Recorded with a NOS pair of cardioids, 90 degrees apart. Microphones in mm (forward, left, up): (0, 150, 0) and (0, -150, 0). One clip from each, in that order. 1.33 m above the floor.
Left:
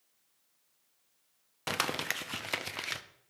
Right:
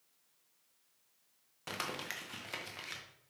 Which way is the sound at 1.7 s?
45° left.